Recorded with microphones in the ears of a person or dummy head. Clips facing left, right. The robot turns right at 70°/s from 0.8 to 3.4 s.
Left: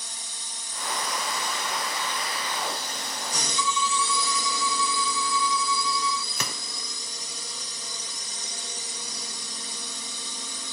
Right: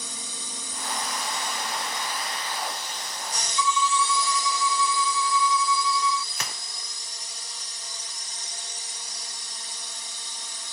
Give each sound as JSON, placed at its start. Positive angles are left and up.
{"t": 0.0, "sound": "a drone", "azimuth_deg": -100}
{"t": 3.6, "sound": "a violin", "side_deg": -75}
{"t": 6.3, "sound": "a gunshot", "side_deg": 90}